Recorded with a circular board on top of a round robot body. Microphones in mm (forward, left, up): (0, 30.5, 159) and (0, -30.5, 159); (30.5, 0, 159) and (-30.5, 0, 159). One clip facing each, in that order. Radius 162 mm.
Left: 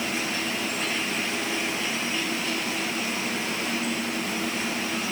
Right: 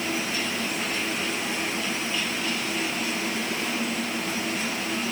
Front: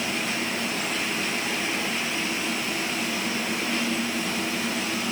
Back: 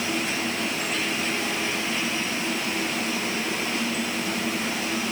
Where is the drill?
I don't hear a drill.